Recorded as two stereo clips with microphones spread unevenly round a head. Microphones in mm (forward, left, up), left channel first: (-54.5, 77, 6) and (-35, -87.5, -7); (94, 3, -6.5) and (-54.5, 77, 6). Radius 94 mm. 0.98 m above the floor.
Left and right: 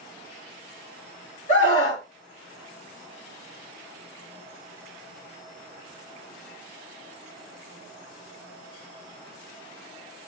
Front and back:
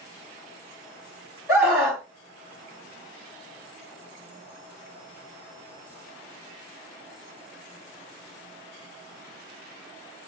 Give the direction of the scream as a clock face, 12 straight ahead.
9 o'clock.